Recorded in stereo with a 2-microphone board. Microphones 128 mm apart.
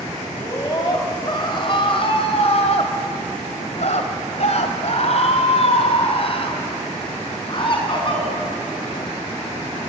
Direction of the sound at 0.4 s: 25° left (ahead or behind).